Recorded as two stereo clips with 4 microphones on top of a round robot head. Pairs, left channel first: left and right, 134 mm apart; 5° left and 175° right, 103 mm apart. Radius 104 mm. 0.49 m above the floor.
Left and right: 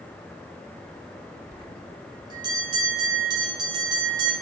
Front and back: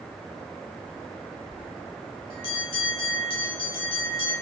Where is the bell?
35° right, 1.7 m.